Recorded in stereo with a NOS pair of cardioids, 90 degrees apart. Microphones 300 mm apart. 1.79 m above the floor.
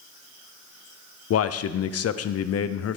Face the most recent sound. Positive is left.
turn(degrees=55)